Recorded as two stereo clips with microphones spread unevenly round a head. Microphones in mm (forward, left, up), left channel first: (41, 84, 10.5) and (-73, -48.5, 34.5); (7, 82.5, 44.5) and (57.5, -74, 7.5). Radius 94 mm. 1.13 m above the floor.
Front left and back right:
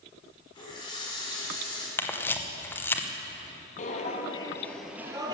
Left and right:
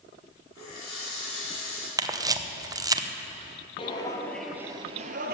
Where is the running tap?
115° left, 5.5 m.